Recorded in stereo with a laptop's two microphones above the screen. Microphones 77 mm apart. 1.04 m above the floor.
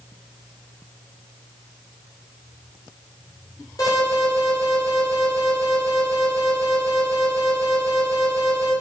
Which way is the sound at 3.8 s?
50° left (ahead or behind).